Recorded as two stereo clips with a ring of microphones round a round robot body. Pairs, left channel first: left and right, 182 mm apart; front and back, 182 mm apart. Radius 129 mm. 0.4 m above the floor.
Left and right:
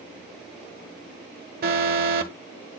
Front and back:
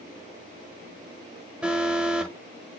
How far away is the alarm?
About 1.2 m.